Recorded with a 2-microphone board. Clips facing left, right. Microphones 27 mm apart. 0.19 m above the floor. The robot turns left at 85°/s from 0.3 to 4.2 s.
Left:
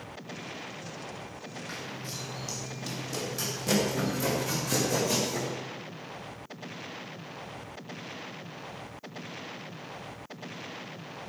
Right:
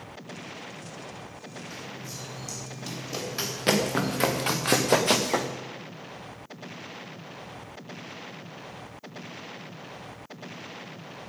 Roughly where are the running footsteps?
Left.